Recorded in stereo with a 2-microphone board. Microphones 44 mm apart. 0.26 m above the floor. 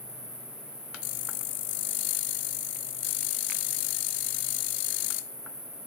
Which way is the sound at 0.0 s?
20° right (ahead or behind).